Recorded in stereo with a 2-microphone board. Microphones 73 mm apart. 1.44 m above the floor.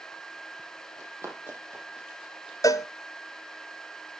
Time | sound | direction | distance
1.0 | running footsteps | 45° right (ahead or behind) | 3.5 m
2.6 | a cowbell | 50° left (ahead or behind) | 0.6 m